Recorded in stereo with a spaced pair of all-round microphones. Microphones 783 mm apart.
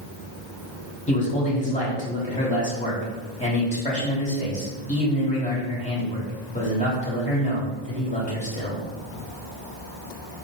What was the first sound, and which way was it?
A man speaking, 10° left (ahead or behind).